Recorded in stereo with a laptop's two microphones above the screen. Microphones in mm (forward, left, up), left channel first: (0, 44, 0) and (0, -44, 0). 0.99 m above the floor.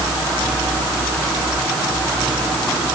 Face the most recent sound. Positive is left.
No sound to turn to.